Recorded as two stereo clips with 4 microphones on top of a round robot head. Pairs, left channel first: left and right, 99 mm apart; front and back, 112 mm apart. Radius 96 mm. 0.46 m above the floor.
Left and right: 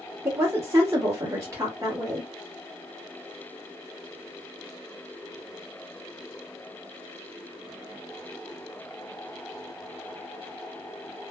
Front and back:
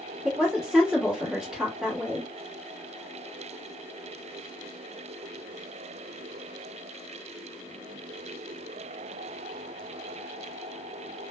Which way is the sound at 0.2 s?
105° right.